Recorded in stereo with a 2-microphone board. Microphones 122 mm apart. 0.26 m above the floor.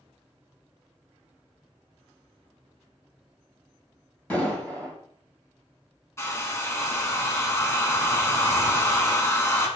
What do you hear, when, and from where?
4.3 s an explosion: 10° left (ahead or behind), 1.3 m
6.2 s a hair dryer: 25° left (ahead or behind), 0.7 m